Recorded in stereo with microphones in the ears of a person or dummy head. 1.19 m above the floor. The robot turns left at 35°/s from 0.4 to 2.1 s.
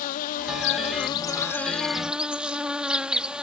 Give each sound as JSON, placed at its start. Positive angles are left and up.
{"t": 0.0, "sound": "an insect", "azimuth_deg": 55}